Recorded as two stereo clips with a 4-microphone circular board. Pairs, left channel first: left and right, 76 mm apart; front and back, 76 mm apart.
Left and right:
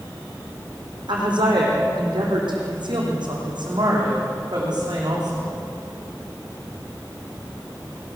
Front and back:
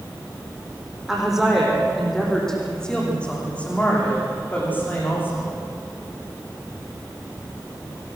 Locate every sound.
1.1 s a woman speaking: 95° right, 7.5 m; by 5.5 s 60° right, 11 m